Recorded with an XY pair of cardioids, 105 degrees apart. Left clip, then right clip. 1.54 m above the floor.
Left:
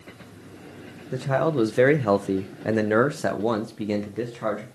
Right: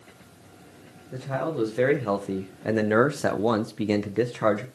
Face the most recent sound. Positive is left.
turn(degrees=-50)